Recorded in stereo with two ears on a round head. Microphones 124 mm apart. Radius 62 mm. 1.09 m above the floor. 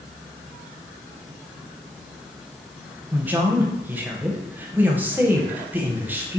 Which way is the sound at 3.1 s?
15° right (ahead or behind).